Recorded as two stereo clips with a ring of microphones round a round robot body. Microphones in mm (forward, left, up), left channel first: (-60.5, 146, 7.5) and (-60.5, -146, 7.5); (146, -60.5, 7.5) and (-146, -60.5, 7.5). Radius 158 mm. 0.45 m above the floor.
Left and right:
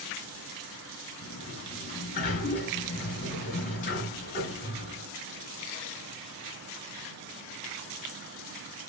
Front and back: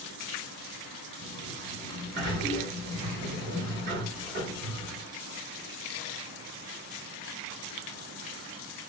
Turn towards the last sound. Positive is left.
turn(degrees=135)